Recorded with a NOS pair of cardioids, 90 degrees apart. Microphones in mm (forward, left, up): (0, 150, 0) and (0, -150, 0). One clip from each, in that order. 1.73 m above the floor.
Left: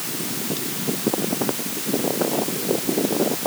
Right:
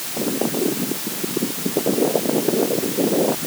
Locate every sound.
Only background noise.